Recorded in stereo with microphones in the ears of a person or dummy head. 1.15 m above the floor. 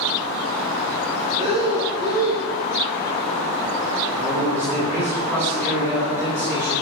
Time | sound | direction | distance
1.4 | breathing | 20° right (ahead or behind) | 5 m
4.2 | a man speaking | 10° right (ahead or behind) | 5 m